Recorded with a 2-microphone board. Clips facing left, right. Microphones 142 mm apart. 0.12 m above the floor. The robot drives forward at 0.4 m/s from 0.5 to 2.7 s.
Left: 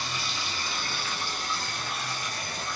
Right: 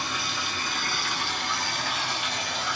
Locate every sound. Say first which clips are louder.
0.0 s running water: right 3 dB; 55° right (ahead or behind), 1.6 m; by 2.8 s 75° right (ahead or behind), 1.3 m